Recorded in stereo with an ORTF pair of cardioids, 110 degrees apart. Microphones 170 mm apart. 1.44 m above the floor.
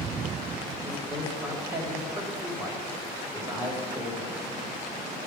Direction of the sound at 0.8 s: 10° right.